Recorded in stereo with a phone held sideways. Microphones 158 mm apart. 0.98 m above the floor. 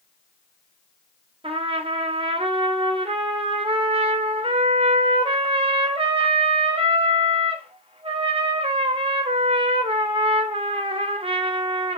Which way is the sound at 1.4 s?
35° right (ahead or behind).